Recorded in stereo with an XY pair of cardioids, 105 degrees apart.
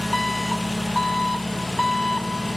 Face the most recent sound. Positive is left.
turn(degrees=10)